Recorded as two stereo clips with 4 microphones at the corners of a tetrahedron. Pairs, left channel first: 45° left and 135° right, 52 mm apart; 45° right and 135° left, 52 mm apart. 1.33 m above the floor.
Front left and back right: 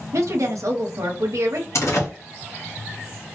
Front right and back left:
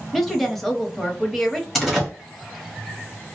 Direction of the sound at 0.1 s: 130° right.